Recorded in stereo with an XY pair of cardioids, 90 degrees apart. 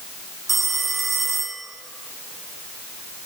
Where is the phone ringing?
40° right, 3 m.